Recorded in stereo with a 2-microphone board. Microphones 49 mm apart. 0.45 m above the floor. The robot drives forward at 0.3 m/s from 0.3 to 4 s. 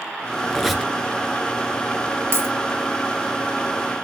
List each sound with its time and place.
0.5 s a squeak: 5° right (ahead or behind), 1.2 m
2.3 s a dropped coin: 50° right (ahead or behind), 3 m